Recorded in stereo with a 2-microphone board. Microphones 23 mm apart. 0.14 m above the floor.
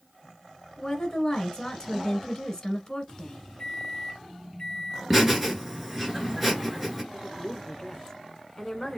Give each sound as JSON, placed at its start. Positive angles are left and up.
{"t": 0.8, "sound": "a woman speaking", "side_deg": 25, "distance_m": 1.6}
{"t": 3.6, "sound": "a microwave", "side_deg": 30, "distance_m": 1.1}
{"t": 5.1, "sound": "laughter", "side_deg": -10, "distance_m": 1.8}
{"t": 7.1, "sound": "a woman speaking", "side_deg": 25, "distance_m": 1.1}